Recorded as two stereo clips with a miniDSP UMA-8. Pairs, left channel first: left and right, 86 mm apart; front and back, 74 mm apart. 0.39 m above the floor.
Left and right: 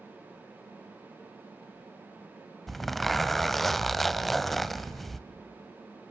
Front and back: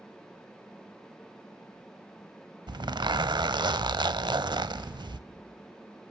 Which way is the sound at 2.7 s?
Straight behind.